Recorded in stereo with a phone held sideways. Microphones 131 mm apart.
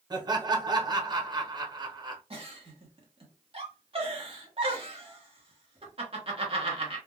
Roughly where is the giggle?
Right.